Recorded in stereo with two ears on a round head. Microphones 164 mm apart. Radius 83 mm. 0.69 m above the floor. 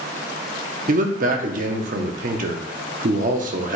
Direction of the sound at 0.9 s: 45° right (ahead or behind).